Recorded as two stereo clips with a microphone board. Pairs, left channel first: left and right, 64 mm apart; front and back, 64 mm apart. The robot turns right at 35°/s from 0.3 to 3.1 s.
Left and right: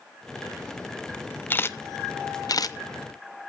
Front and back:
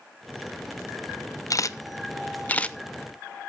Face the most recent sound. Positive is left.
turn(degrees=85)